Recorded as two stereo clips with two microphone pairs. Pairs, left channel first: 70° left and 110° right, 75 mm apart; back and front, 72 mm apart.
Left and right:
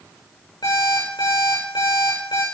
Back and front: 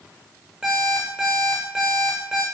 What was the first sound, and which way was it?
An alarm clock, 75° left.